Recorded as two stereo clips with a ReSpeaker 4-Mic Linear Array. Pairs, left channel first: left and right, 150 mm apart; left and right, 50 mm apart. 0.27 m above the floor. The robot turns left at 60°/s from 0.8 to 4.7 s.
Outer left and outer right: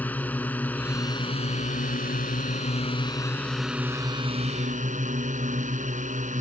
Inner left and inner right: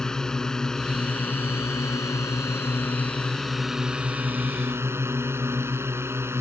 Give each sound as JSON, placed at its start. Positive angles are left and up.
{"t": 0.0, "sound": "a drone", "azimuth_deg": 170}